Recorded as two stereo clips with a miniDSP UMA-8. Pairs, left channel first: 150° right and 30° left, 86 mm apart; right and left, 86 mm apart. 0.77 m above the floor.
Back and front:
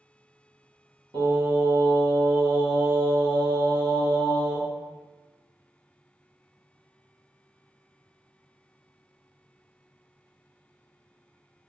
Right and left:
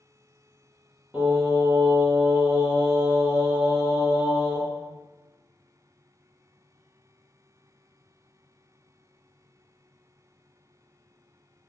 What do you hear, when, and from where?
1.1 s singing: 15° left, 1.4 m